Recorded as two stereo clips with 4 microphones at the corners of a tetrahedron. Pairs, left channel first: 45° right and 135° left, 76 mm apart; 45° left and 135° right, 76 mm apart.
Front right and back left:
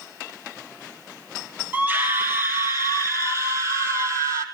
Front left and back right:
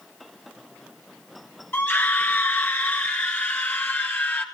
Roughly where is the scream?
Left.